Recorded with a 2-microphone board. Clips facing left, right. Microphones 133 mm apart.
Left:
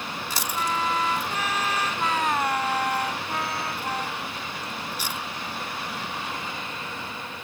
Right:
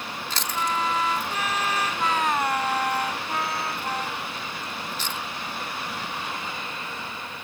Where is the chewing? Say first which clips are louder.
Right 1 dB; 10° left (ahead or behind).